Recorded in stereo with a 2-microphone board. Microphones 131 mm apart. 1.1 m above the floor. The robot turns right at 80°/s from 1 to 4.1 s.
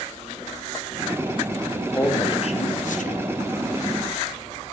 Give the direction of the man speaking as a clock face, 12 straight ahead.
12 o'clock.